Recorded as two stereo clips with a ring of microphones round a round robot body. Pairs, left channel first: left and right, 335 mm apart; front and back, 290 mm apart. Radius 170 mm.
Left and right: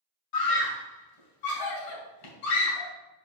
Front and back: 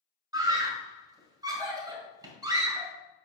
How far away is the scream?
About 2 m.